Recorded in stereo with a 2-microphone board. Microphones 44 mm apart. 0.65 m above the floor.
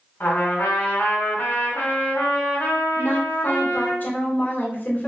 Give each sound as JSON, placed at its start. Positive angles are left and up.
{"t": 0.2, "sound": "a trumpet", "side_deg": 50, "distance_m": 1.9}
{"t": 3.0, "sound": "a woman speaking", "side_deg": 40, "distance_m": 1.8}